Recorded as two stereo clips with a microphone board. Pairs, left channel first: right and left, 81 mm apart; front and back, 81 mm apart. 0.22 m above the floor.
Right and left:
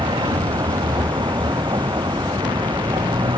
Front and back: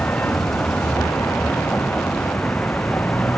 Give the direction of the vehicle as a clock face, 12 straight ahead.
10 o'clock.